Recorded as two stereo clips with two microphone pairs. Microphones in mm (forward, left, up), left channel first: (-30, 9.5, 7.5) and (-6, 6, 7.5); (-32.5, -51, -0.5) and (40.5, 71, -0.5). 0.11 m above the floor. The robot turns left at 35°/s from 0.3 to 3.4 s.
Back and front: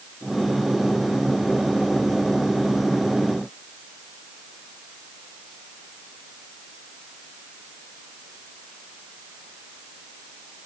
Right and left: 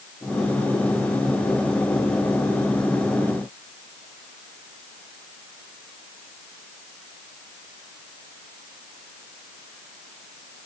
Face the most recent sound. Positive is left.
No sound to turn to.